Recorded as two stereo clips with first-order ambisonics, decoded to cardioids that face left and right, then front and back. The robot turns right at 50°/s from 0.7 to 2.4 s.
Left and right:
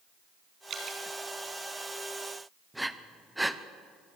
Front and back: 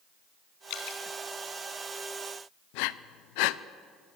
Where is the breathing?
5° right, 0.7 m.